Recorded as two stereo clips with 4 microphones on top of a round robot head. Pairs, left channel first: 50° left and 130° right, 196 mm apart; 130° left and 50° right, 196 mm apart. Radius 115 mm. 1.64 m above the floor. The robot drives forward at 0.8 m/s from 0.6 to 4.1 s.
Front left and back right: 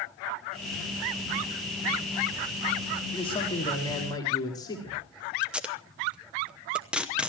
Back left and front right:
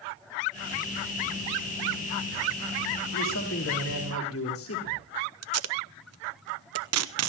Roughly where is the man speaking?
Left.